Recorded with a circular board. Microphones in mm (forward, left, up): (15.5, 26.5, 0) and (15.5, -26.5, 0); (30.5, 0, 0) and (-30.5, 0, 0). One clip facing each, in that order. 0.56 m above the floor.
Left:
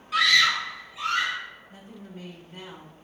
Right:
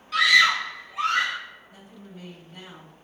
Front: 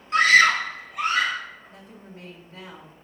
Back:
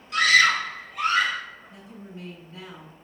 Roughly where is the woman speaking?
Ahead left.